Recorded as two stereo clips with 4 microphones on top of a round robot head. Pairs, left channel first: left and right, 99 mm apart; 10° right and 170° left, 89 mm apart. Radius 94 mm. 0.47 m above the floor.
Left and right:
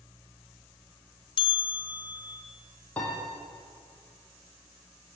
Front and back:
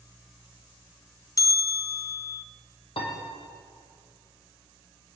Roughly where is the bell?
Ahead left.